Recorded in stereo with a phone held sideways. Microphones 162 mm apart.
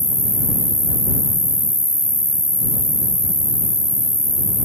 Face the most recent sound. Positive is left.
turn(degrees=75)  # may be behind; listen again after turning